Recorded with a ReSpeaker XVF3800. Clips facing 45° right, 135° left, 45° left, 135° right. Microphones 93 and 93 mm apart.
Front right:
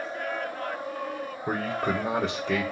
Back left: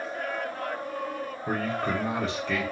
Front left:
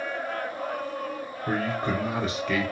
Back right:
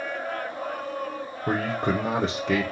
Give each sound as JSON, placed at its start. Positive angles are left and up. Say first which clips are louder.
{"t": 1.5, "sound": "a man speaking", "louder": "front right 1 dB, back right 2 dB", "azimuth_deg": -115, "distance_m": 0.8}